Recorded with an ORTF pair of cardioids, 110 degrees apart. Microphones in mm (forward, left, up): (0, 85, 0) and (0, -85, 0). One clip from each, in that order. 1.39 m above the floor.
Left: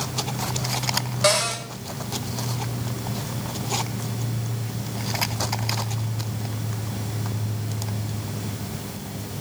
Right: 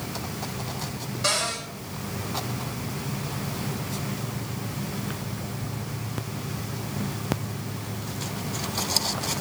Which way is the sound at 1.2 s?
50° left.